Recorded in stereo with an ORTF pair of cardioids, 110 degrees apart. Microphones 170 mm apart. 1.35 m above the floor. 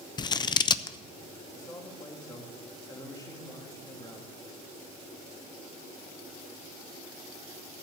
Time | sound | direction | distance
0.2 | scissors | 25° left | 0.6 m
1.5 | a man speaking | 20° left | 3 m